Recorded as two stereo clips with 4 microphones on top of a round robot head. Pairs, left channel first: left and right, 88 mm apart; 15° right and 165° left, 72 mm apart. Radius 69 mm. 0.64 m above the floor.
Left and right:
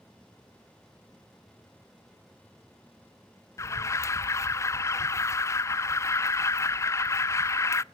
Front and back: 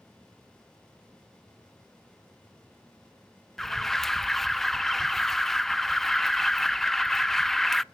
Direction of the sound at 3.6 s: 70° left.